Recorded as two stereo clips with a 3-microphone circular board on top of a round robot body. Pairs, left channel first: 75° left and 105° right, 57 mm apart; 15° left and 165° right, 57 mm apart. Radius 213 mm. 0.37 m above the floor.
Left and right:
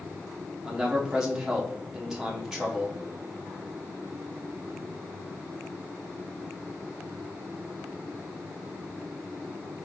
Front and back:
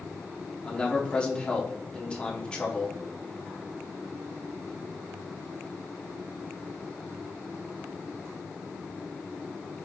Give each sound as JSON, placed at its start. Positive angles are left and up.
{"t": 0.7, "sound": "a man speaking", "azimuth_deg": -35, "distance_m": 1.3}